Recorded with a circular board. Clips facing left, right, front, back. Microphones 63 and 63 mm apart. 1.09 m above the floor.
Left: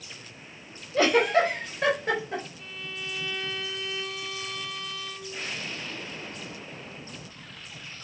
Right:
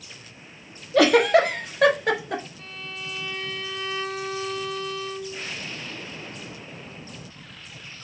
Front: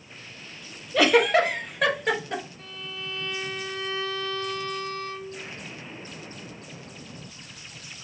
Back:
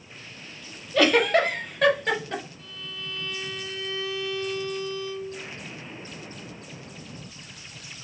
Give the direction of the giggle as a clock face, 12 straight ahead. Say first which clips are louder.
Right 5 dB, front 1 dB; 3 o'clock.